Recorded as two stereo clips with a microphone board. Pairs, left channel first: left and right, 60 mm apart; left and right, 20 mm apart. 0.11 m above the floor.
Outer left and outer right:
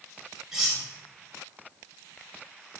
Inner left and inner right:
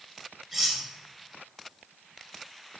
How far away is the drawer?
I don't hear a drawer.